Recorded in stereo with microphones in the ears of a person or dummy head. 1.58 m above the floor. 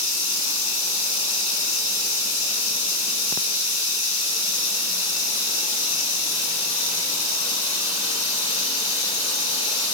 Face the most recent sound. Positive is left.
turn(degrees=60)  # may be behind; listen again after turning